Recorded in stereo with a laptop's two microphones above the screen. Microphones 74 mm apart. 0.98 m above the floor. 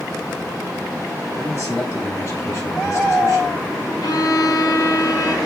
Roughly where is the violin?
Left.